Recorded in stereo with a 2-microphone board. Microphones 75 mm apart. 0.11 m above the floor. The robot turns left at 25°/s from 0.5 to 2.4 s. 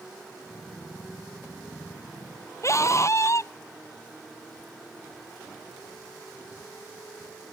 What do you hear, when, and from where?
2.6 s a scream: 40° left (ahead or behind)